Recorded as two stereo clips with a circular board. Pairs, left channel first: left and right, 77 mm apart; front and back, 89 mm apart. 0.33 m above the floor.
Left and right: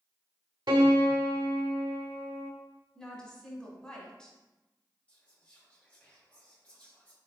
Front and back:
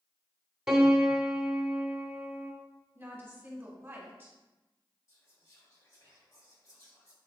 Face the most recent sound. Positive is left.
turn(degrees=25)